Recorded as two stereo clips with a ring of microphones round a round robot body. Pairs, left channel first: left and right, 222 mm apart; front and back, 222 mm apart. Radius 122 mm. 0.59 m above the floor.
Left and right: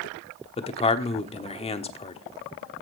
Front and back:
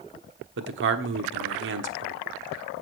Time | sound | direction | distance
0.6 | a man speaking | 150° left | 1.2 m